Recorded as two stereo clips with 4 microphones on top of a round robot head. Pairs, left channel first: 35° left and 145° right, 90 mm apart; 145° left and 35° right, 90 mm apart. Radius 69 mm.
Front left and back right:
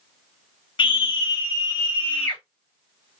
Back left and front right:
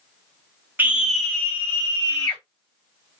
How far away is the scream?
About 0.8 m.